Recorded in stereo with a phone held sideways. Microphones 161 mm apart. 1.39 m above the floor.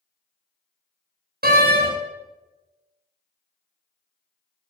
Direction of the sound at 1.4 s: 75° right (ahead or behind).